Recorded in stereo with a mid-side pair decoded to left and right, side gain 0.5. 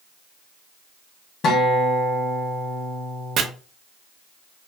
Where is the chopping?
60° right, 0.5 m.